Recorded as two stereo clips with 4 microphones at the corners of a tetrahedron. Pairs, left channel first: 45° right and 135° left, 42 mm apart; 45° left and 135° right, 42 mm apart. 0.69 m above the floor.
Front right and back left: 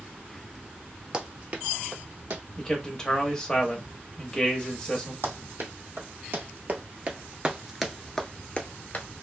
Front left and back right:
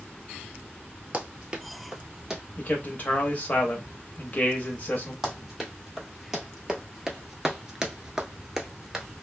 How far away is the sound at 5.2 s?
About 1.5 m.